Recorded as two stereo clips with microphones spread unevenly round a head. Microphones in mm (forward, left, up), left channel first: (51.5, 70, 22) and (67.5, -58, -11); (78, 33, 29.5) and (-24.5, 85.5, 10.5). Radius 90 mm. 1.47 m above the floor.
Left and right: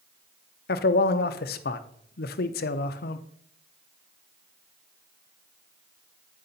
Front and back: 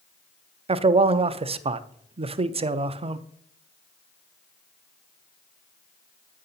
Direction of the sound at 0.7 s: 110° left.